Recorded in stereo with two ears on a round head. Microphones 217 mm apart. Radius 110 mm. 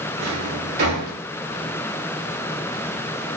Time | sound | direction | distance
0.2 | a drawer | 40° right (ahead or behind) | 1.2 m